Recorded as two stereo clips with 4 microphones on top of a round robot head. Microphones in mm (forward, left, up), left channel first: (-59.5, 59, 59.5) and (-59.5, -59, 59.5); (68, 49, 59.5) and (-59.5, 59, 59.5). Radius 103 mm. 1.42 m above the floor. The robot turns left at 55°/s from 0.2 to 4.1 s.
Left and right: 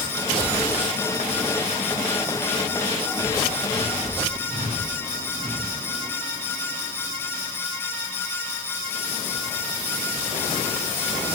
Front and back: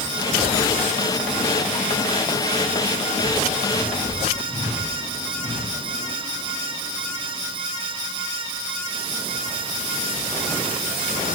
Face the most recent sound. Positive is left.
No sound to turn to.